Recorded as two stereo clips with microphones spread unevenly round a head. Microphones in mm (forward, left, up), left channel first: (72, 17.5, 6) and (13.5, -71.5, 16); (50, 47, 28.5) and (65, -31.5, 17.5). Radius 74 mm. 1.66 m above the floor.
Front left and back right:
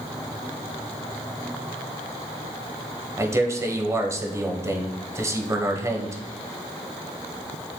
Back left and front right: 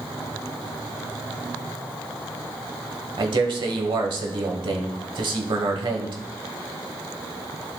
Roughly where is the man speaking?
Ahead right.